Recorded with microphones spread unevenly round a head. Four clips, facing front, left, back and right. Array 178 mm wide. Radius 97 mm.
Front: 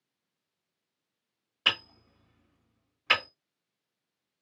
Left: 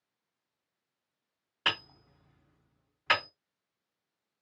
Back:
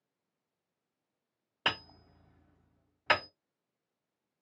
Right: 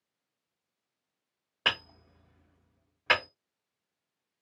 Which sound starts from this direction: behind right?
Hammering, at 1.6 s.